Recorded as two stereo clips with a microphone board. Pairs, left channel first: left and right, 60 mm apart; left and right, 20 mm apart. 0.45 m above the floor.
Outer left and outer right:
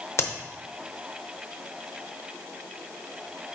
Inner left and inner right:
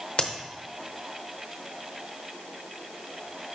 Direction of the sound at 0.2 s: 55° left (ahead or behind).